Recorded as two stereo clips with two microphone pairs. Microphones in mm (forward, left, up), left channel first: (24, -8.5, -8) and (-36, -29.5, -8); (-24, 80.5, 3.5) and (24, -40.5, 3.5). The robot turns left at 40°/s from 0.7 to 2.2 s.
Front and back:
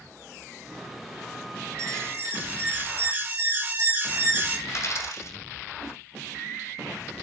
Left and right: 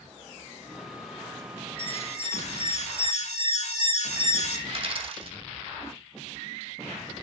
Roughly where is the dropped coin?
Ahead.